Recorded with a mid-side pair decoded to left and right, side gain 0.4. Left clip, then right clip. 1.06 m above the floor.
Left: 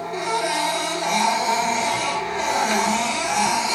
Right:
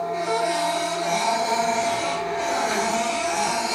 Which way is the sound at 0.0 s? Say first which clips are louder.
Even; 70° left.